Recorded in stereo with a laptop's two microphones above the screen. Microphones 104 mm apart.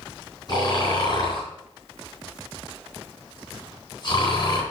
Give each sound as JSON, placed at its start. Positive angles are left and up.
{"t": 0.5, "sound": "snoring", "side_deg": 40, "distance_m": 3.5}